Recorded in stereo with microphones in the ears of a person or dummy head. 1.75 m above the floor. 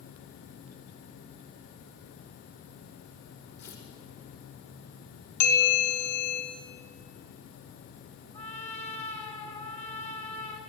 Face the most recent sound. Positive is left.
turn(degrees=45)  # may be behind; listen again after turning